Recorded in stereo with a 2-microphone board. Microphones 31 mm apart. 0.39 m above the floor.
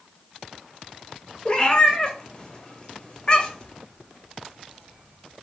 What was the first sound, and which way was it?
A cat meowing, 25° left (ahead or behind).